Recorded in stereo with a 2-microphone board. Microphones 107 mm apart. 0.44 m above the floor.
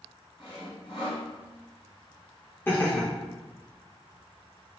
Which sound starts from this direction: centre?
Laughter, at 2.7 s.